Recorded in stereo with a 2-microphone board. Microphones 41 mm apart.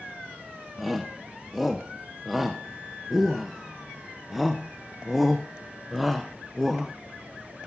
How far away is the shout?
About 1.0 m.